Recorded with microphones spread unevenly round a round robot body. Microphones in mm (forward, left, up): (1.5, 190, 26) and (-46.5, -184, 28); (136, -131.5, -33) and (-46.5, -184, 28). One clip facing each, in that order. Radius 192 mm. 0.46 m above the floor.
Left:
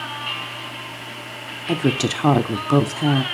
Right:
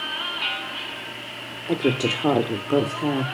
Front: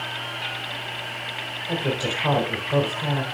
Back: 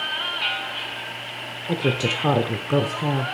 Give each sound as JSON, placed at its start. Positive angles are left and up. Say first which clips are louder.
{"t": 1.7, "sound": "a woman speaking", "louder": "left 1 dB, back 3 dB", "azimuth_deg": 135, "distance_m": 1.0}